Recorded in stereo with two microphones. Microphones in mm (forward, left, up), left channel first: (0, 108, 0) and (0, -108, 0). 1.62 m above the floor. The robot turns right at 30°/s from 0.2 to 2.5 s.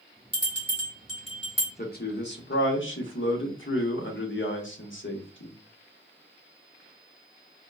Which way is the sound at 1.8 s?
45° left (ahead or behind).